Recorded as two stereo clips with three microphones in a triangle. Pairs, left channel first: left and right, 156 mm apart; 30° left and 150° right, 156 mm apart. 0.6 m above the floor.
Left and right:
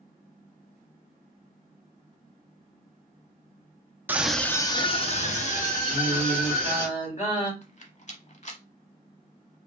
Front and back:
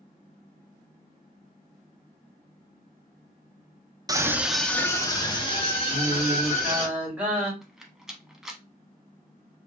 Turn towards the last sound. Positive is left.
turn(degrees=125)